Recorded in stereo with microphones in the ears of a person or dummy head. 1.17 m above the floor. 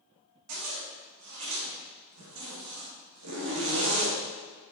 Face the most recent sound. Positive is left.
turn(degrees=-75)  # may be behind; listen again after turning